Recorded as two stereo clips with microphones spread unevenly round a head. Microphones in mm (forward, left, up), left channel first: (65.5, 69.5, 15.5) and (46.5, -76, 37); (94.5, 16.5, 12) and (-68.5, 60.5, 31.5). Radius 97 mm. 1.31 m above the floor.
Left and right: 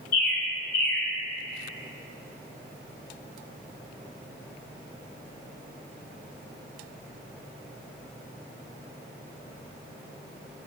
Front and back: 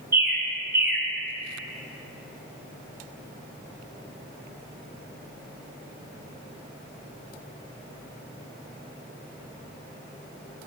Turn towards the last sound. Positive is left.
turn(degrees=100)